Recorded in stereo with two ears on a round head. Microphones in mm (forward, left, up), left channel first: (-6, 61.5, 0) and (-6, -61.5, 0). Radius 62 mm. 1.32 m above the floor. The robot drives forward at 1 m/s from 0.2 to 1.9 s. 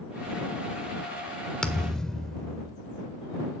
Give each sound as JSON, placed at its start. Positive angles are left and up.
{"t": 1.6, "sound": "a thud", "side_deg": 5, "distance_m": 1.4}